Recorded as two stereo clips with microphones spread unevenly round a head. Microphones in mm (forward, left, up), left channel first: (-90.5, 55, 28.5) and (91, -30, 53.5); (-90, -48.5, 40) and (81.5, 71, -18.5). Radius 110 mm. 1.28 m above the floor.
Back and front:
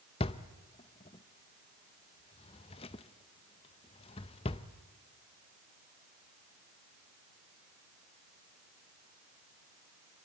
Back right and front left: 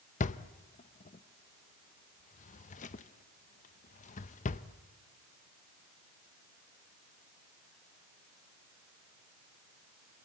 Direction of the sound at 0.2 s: 140° right.